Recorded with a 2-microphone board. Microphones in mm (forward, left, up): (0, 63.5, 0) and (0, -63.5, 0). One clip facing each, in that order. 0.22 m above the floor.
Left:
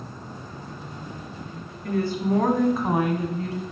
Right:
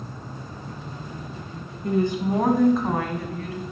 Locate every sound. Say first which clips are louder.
1.8 s a woman speaking: right 2 dB; 25° right (ahead or behind), 2 m; by 3.6 s 35° left (ahead or behind), 1.9 m